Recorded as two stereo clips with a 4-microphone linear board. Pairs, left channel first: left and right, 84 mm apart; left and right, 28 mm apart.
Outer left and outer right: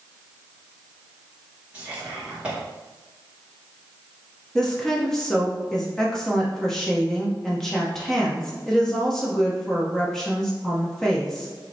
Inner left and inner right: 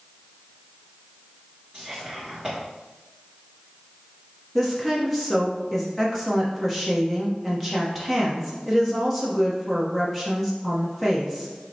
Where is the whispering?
15° right (ahead or behind), 1.7 m.